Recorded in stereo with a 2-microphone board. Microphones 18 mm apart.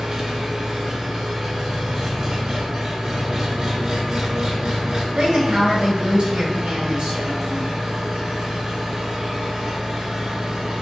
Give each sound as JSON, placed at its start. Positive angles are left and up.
{"t": 0.0, "sound": "an engine running", "side_deg": -35, "distance_m": 1.4}
{"t": 5.2, "sound": "a woman speaking", "side_deg": -60, "distance_m": 2.0}